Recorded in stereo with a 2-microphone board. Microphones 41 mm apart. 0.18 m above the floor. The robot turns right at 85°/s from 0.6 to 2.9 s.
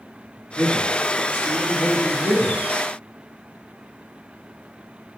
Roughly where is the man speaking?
Behind.